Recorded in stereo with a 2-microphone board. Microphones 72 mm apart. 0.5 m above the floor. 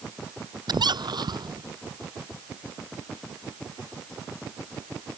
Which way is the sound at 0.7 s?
80° right.